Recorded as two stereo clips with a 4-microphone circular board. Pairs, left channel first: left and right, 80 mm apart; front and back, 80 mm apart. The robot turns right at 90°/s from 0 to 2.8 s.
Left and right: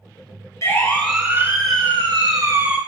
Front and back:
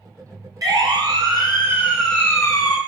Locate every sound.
0.6 s a siren: 140° left, 6 m; by 2.8 s 15° right, 5 m